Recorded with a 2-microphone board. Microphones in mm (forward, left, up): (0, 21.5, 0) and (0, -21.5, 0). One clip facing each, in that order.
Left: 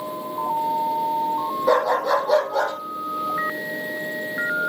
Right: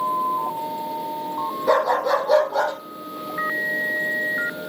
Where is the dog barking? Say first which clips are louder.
Even; 5° left (ahead or behind), 5.5 m; by 2.7 s 10° right (ahead or behind), 5 m.